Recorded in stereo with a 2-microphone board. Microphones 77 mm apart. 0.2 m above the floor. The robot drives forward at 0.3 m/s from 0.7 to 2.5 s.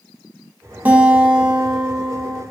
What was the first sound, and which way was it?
A guitar, 20° right (ahead or behind).